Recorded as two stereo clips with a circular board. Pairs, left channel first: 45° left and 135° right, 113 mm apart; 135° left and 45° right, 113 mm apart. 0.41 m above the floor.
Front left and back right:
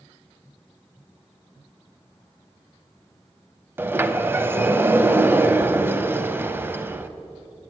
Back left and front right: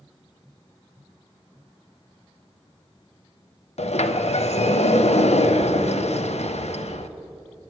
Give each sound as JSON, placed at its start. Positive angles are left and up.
{"t": 3.8, "sound": "a sliding door", "azimuth_deg": 155, "distance_m": 0.5}